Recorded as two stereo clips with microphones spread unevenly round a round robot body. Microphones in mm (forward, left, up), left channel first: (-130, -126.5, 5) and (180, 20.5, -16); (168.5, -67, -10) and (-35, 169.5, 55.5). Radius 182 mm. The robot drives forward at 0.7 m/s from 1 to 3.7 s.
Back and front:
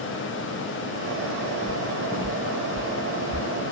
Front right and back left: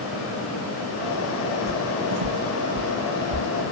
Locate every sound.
1.7 s footsteps: 105° left; by 3.5 s 150° left